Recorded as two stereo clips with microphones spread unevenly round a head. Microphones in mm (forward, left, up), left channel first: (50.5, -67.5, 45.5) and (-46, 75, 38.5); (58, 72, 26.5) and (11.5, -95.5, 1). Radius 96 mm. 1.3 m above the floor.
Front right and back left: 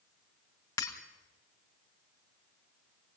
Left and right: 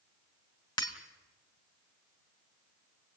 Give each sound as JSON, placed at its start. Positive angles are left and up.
{"t": 0.8, "sound": "breaking glass", "azimuth_deg": 15, "distance_m": 2.0}